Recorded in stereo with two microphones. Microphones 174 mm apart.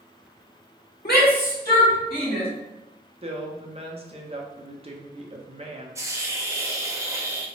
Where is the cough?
No cough in this recording.